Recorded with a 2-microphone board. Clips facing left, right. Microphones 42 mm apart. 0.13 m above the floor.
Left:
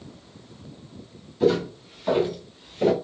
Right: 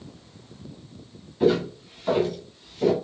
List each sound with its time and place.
1.4 s footsteps: 10° right (ahead or behind), 2 m; by 2.9 s 35° left (ahead or behind), 1.7 m